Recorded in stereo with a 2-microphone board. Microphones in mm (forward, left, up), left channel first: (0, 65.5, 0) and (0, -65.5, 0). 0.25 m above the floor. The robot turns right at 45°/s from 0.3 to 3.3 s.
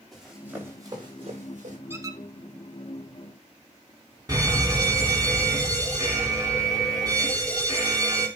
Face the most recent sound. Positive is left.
turn(degrees=-30)  # may be behind; listen again after turning